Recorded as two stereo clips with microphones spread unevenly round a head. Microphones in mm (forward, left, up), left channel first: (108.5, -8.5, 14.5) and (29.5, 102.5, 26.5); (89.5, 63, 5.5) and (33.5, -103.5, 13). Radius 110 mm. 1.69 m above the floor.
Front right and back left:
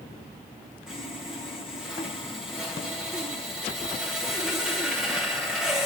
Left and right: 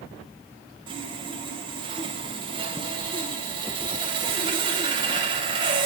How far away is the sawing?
About 0.8 m.